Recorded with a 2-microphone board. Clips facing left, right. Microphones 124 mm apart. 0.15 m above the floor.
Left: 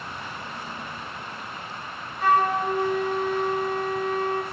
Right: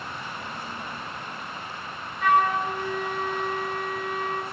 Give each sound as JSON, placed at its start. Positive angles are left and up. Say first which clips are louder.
{"t": 2.2, "sound": "a flute", "louder": "left 1 dB", "side_deg": 35, "distance_m": 0.5}